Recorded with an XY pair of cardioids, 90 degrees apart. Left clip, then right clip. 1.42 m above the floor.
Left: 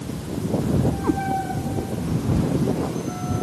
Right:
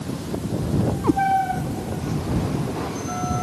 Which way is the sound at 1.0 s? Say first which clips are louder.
Right 5 dB; 30° right.